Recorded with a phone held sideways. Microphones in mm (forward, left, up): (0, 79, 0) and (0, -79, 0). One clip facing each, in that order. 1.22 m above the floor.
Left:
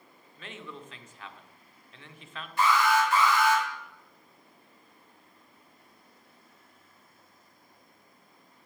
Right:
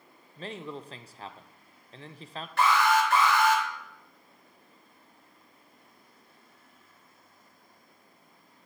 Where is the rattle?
I don't hear a rattle.